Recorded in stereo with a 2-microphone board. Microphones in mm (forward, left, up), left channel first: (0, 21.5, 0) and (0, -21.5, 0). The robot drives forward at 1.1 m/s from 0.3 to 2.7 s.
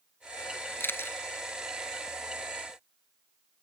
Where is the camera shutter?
60° left (ahead or behind); by 1.2 s 65° left (ahead or behind).